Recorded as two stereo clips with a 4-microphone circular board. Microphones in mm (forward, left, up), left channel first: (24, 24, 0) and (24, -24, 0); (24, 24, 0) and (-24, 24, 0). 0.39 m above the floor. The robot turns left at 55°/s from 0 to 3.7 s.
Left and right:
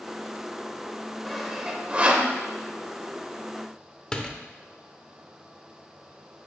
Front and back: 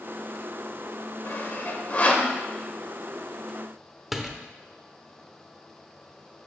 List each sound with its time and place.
1.2 s sawing: 5° left, 1.1 m; by 2.3 s 55° right, 1.1 m
4.1 s a door slam: 105° left, 0.8 m